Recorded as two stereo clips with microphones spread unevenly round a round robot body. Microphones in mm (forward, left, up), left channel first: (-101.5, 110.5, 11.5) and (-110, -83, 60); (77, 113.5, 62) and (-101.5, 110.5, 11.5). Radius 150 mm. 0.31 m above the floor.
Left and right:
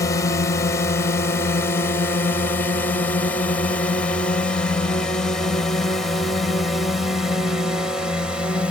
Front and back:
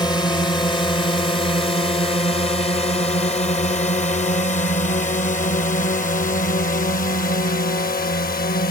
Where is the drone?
70° left; by 8.7 s 10° left.